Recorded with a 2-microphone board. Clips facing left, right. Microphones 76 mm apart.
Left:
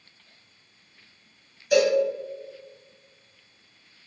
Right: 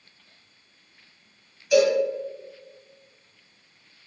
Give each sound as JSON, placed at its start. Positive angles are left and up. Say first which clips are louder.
{"t": 1.7, "sound": "a cowbell", "louder": "right 1 dB", "side_deg": 45, "distance_m": 1.5}